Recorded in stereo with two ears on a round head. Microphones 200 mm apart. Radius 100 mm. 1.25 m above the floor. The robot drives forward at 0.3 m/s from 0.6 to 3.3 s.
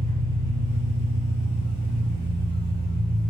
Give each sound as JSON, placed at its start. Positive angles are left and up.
{"t": 0.0, "sound": "an engine running", "side_deg": 80, "distance_m": 0.9}